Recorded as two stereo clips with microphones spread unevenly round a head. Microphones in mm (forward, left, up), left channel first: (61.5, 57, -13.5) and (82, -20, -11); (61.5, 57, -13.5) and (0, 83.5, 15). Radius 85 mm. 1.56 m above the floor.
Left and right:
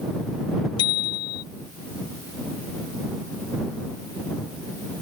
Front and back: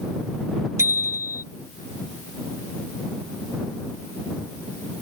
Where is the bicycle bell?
125° left.